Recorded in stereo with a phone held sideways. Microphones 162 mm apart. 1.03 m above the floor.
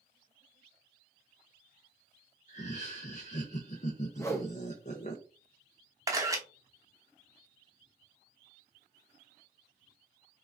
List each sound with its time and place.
2.5 s laughter: 50° left (ahead or behind), 0.6 m
4.2 s a whoosh: 20° left (ahead or behind), 0.7 m
6.1 s a camera shutter: 20° right (ahead or behind), 0.9 m